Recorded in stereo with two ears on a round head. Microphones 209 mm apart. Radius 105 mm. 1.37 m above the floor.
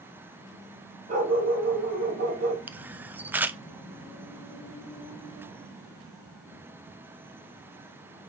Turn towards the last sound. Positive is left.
turn(degrees=-10)  # may be behind; listen again after turning